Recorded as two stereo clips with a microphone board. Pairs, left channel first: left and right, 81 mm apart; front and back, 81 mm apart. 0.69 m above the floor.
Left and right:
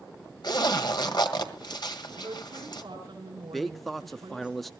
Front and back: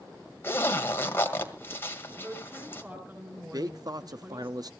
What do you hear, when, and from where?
0.4 s a zipper: 60° left, 1.8 m
2.2 s a woman speaking: 115° right, 6 m
3.5 s a man speaking: 175° left, 0.7 m